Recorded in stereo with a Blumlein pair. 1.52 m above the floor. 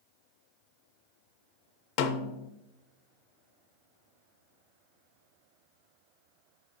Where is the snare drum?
45° left, 0.6 m.